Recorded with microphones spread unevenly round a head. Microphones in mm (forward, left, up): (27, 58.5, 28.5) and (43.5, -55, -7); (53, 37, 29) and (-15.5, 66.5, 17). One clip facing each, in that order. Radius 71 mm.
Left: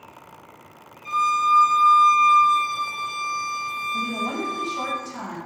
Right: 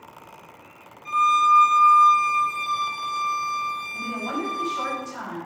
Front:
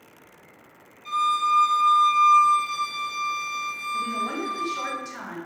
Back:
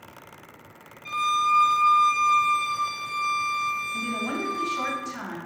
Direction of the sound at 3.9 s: 50° left.